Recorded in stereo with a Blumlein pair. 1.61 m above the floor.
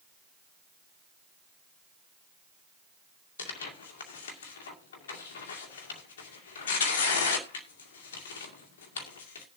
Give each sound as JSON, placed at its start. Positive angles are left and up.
{"t": 3.4, "sound": "tearing paper", "azimuth_deg": 60, "distance_m": 2.0}